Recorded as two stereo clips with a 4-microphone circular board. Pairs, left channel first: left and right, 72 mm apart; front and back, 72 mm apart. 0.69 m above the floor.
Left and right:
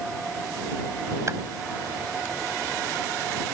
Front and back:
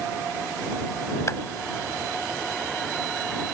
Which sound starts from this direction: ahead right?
A clap, at 1.3 s.